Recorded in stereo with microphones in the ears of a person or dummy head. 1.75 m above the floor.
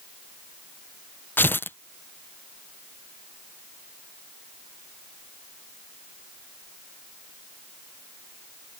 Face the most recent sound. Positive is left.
turn(degrees=10)  # may be behind; listen again after turning